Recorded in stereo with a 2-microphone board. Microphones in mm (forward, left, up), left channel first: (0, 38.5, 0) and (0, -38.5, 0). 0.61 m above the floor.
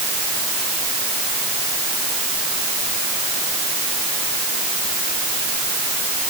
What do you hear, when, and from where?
Only background noise.